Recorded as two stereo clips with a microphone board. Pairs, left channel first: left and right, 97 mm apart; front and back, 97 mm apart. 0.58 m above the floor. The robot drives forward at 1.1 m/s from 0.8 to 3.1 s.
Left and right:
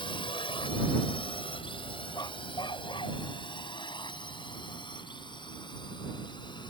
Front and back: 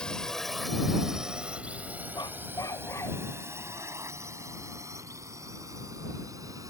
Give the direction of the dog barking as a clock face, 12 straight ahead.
11 o'clock.